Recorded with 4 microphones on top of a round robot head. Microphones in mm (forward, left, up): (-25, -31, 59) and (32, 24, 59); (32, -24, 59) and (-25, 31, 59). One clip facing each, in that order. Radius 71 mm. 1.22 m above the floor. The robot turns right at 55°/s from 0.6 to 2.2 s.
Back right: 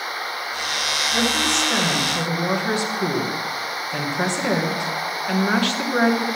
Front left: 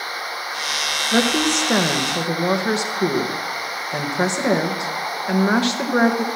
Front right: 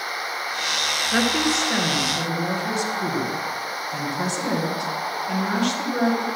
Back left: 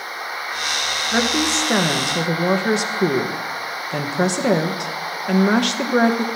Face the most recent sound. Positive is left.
turn(degrees=115)